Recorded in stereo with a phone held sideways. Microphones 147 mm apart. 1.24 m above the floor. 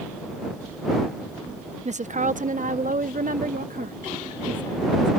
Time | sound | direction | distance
1.9 | a woman speaking | 50° right (ahead or behind) | ?